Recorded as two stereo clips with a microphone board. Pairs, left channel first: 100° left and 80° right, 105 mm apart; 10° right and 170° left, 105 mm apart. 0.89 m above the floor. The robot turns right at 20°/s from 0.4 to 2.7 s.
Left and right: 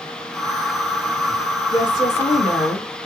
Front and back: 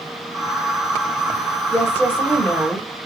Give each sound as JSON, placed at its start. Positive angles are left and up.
{"t": 1.7, "sound": "a woman speaking", "azimuth_deg": 60, "distance_m": 2.5}